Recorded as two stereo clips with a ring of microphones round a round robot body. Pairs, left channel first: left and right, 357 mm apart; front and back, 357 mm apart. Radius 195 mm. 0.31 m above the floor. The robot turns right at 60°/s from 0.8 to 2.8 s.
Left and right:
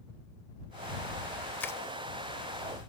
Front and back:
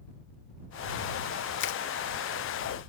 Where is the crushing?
10° left; by 1.8 s 20° left.